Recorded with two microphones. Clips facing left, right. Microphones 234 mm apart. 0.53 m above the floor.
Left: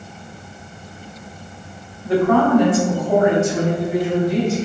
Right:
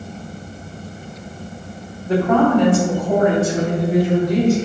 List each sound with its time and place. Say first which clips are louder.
2.0 s a woman speaking: even; 15° right (ahead or behind), 1.3 m; by 4.5 s 40° right (ahead or behind), 3 m